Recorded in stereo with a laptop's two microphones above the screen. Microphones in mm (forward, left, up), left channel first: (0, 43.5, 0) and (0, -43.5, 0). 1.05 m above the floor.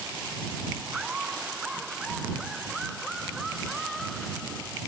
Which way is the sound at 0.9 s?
10° right (ahead or behind).